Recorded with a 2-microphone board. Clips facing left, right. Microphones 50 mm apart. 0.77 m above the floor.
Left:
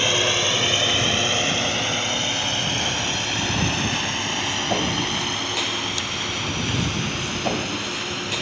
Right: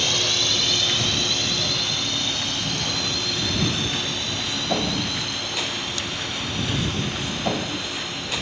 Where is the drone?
30° left (ahead or behind); by 8.4 s 50° left (ahead or behind).